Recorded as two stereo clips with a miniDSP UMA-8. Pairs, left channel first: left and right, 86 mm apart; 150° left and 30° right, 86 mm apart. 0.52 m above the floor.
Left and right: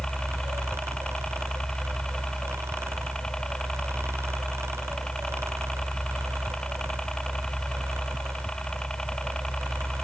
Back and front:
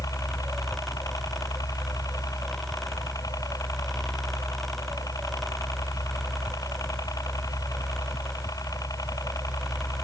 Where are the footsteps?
No footsteps in this recording.